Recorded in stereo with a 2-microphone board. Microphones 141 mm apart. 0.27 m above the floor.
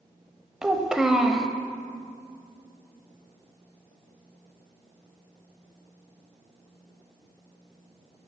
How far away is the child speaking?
About 0.5 m.